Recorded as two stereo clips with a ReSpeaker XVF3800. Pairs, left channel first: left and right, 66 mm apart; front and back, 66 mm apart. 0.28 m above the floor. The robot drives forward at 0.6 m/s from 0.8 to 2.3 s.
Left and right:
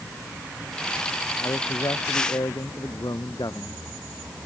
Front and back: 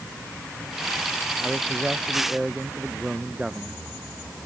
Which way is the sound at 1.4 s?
100° left.